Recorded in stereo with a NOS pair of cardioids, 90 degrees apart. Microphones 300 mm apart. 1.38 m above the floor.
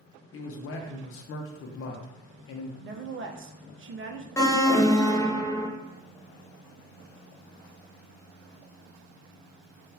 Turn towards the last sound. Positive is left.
turn(degrees=10)